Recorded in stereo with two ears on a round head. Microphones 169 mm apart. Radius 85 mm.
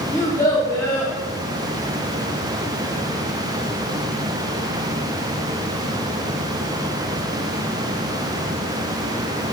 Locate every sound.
0.1 s a child speaking: 15° left (ahead or behind), 1.1 m